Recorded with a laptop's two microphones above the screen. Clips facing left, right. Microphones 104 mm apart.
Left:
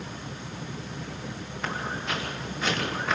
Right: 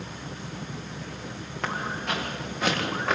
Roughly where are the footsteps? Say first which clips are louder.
Right 2 dB; right.